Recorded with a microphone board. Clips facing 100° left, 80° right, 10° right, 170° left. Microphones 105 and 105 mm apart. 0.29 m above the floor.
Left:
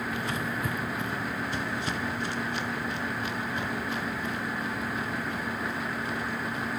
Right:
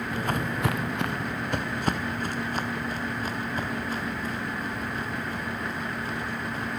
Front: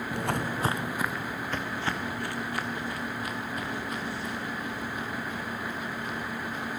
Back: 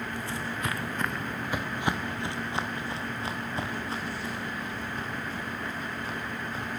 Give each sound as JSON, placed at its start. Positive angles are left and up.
{"t": 0.1, "sound": "footsteps", "azimuth_deg": -20, "distance_m": 1.1}